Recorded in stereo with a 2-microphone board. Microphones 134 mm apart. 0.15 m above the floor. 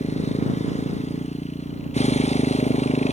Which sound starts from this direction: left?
A motorcycle, at 0.0 s.